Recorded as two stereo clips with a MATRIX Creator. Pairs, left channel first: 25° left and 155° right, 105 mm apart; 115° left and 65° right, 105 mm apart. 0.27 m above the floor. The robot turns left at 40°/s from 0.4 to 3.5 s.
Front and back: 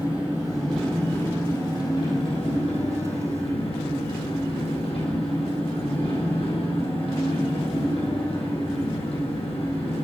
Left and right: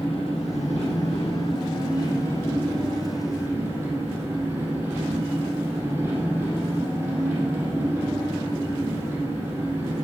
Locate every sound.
0.0 s an engine running: 130° left, 4.5 m; by 10.1 s 5° left, 4.5 m